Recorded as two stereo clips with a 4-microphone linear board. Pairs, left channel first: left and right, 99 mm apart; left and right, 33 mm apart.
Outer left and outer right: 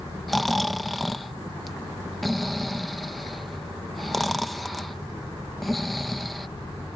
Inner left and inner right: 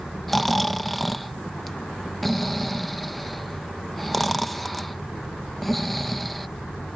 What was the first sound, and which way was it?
Snoring, centre (ahead or behind).